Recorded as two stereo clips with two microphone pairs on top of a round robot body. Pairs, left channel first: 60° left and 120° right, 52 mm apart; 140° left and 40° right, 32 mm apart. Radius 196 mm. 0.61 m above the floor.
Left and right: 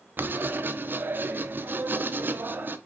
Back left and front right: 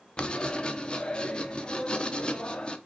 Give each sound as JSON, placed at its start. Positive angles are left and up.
{"t": 0.2, "sound": "writing", "azimuth_deg": -160, "distance_m": 1.2}